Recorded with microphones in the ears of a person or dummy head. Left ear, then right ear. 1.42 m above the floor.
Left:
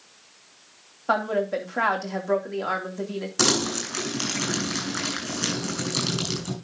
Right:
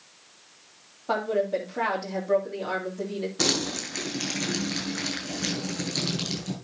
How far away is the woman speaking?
About 3.5 m.